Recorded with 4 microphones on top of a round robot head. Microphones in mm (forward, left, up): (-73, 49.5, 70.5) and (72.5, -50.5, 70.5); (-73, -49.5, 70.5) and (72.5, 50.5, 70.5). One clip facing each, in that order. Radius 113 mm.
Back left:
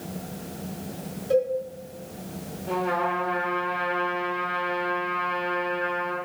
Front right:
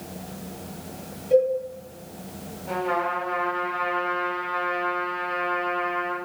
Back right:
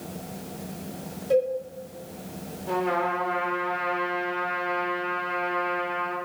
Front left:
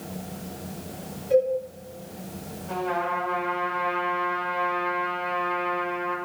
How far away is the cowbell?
About 4.5 m.